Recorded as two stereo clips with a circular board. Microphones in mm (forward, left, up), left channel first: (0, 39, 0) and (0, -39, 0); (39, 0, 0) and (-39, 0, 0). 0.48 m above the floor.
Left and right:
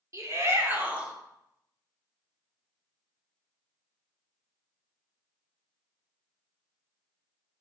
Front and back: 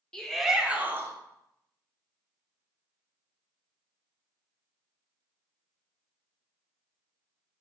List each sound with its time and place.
0.1 s a shout: 75° right, 1.3 m; by 1.1 s 160° right, 1.2 m